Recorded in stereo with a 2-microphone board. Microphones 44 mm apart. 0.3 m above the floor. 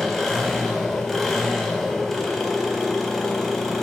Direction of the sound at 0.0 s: 5° left (ahead or behind).